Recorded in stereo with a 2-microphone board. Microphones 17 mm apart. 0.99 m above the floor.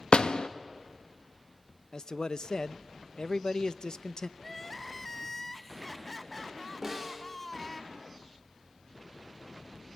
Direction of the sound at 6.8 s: 15° right (ahead or behind).